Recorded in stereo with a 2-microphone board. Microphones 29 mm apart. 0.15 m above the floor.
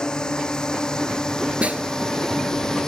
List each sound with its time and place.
0.0 s a drone: 30° left (ahead or behind); by 2.9 s 20° left (ahead or behind)
1.6 s a snare drum: 55° right (ahead or behind)